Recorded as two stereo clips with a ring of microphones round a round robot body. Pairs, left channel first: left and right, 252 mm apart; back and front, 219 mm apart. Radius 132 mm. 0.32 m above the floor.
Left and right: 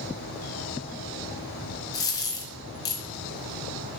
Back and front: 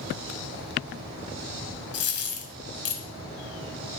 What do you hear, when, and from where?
1.9 s a dropped coin: 165° left, 1.1 m